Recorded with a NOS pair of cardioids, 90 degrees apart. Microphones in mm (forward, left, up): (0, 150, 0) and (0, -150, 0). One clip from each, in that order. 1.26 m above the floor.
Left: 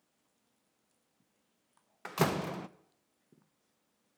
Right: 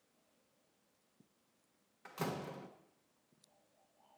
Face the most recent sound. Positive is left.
turn(degrees=60)